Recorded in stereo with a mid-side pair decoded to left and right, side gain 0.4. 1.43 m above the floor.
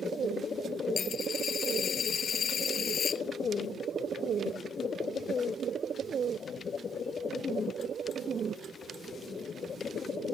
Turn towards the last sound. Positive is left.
turn(degrees=55)